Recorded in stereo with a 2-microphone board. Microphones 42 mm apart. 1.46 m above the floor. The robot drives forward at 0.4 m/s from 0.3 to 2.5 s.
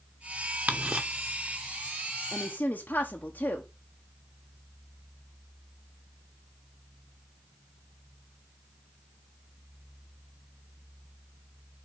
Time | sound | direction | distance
0.7 | ticking | 35° right (ahead or behind) | 0.9 m
2.3 | a woman speaking | 55° left (ahead or behind) | 0.9 m